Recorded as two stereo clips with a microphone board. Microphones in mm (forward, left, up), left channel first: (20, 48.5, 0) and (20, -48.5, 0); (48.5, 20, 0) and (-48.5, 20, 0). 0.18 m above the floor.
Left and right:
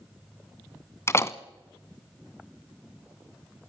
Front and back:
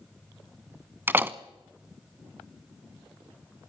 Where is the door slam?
125° left, 0.8 m.